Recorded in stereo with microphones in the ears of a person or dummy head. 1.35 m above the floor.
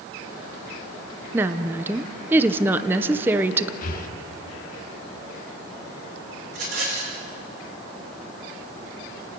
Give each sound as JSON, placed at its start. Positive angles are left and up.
{"t": 1.3, "sound": "a woman speaking", "side_deg": -15, "distance_m": 0.9}
{"t": 3.8, "sound": "breathing", "side_deg": 50, "distance_m": 1.7}
{"t": 6.5, "sound": "a rattle", "side_deg": -55, "distance_m": 5.5}